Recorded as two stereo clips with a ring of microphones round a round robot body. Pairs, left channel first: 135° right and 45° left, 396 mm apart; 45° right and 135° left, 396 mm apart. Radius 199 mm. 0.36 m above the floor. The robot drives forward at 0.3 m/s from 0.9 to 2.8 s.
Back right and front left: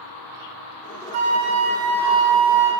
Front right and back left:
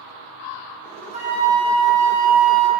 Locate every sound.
1.1 s a flute: 65° left, 0.6 m; by 2.7 s 130° left, 0.6 m